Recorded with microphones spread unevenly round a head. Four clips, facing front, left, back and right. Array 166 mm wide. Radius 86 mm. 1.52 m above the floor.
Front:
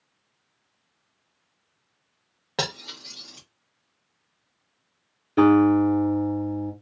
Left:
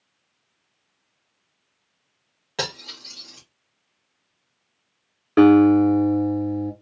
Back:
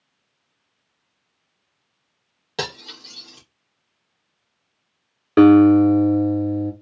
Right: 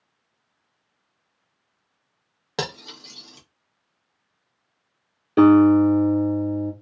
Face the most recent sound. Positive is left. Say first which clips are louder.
# even, back 6 dB
turn(degrees=170)